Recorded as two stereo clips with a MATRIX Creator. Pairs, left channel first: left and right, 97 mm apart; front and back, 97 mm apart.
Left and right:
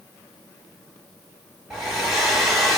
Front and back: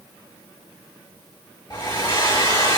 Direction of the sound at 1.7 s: Straight ahead.